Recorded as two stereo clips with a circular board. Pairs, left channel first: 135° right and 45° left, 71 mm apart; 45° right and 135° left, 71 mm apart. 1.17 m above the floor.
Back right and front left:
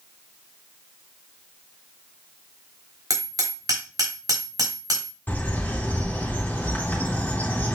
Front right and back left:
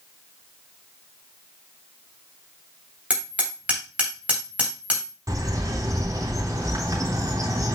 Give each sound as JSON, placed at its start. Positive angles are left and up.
{"t": 3.1, "sound": "hammering", "azimuth_deg": 65, "distance_m": 3.5}
{"t": 5.3, "sound": "a bird", "azimuth_deg": 160, "distance_m": 3.5}